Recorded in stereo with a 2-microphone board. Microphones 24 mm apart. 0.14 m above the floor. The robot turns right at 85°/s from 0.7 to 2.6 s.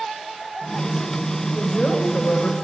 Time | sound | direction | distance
1.6 | a woman speaking | 20° left | 9.5 m